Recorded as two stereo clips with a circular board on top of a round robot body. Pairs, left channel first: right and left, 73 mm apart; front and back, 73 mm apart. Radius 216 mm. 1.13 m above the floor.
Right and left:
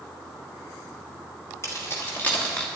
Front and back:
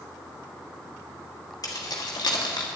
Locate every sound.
1.6 s keys jangling: 35° right, 1.5 m; by 2.7 s 15° right, 1.2 m